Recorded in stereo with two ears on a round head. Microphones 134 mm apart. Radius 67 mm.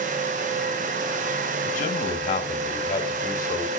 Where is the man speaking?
50° left (ahead or behind), 1.6 m; by 3.7 s 25° left (ahead or behind), 3 m.